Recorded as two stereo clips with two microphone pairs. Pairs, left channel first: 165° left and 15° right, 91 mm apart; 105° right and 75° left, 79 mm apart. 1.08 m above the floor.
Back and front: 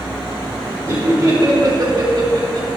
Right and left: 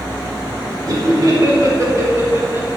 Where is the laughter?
40° left, 4.5 m; by 2.7 s 15° left, 3 m.